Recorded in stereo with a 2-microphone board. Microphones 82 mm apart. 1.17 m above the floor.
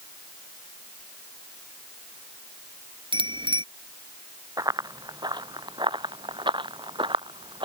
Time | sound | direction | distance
3.1 | a bicycle bell | 85° right | ?
4.6 | running footsteps | 50° right (ahead or behind) | ?